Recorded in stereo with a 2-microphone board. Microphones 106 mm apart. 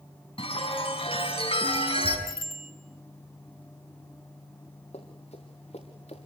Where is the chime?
55° left (ahead or behind), 6 m.